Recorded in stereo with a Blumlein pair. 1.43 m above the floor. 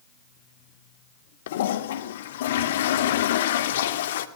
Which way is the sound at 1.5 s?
60° left.